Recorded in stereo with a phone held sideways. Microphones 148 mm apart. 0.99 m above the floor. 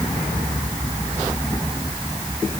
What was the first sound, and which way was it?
Only background noise.